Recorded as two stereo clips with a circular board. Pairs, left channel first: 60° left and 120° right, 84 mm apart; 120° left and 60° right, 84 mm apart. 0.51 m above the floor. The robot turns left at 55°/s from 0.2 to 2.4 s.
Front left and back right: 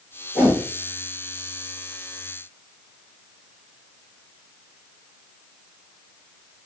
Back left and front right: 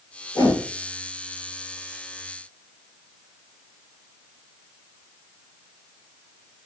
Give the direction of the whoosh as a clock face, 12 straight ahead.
7 o'clock.